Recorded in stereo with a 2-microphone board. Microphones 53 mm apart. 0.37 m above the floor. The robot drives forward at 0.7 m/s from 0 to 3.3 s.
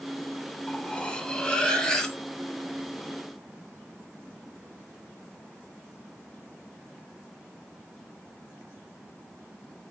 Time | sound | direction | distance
0.7 | cutlery clinking | 20° left (ahead or behind) | 0.6 m